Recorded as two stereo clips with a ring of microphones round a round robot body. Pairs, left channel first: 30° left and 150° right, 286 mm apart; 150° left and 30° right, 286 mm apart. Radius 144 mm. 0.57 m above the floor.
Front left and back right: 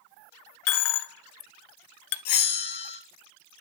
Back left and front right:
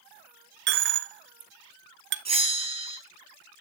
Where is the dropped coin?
20° left, 0.9 m.